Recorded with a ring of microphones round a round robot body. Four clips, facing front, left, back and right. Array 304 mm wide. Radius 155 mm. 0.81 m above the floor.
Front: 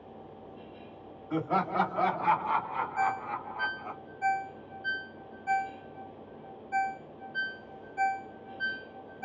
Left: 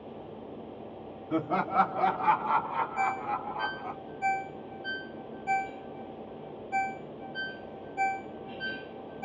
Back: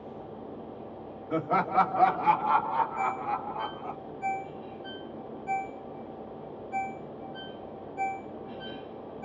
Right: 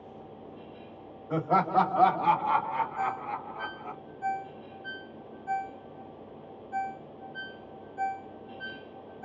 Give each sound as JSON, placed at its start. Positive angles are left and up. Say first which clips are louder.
{"t": 1.3, "sound": "laughter", "louder": "right 3 dB, back 3 dB", "azimuth_deg": -105, "distance_m": 1.6}
{"t": 3.0, "sound": "a ringtone", "louder": "left 2 dB, back 1 dB", "azimuth_deg": 65, "distance_m": 0.5}